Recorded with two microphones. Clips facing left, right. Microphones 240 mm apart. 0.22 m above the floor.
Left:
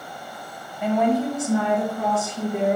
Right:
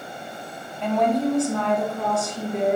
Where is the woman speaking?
10° left (ahead or behind), 1.1 m; by 2.8 s 5° left (ahead or behind), 3 m.